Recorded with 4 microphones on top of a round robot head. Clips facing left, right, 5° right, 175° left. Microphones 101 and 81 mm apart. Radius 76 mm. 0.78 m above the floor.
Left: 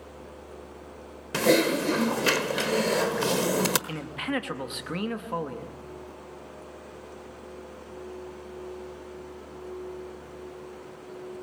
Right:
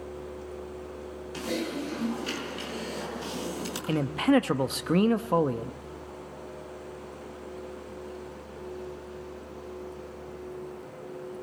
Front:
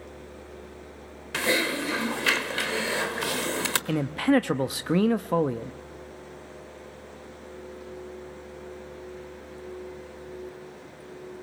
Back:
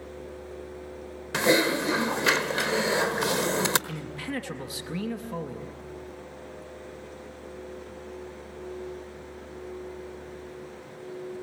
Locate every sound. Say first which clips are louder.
1.3 s typing on a keyboard: left 10 dB, back 4 dB; 105° left, 1.2 m
3.9 s a man speaking: right 8 dB, front 12 dB; 35° right, 0.8 m